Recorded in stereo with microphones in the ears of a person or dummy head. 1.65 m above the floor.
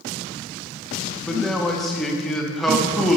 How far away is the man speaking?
About 0.8 m.